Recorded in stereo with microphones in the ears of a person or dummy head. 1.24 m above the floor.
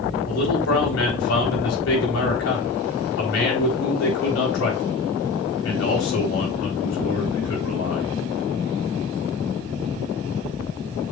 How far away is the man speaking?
About 4 m.